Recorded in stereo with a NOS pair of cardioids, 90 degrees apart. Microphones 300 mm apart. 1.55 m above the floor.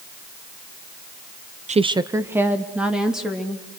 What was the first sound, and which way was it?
A woman speaking, 25° right.